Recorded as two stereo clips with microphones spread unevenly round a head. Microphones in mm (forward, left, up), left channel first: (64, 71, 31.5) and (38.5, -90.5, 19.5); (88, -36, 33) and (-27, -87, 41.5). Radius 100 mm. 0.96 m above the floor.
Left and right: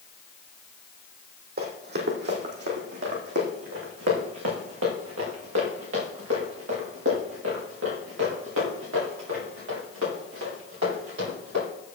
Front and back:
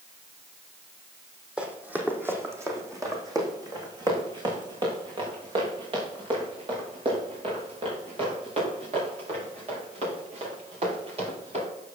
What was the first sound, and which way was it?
Running footsteps, 80° right.